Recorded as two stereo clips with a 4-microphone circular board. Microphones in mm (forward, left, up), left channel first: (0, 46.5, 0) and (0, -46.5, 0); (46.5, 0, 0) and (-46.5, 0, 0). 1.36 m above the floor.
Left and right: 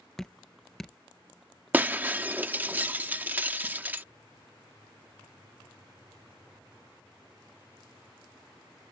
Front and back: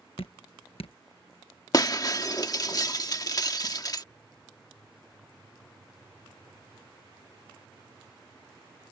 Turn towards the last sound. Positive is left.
turn(degrees=-30)